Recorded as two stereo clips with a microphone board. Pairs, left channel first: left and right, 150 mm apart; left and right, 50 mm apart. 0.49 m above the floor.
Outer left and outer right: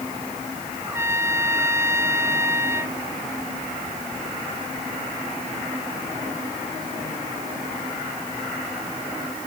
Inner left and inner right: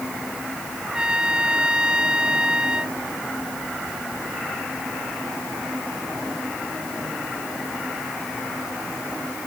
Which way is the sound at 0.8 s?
20° right (ahead or behind).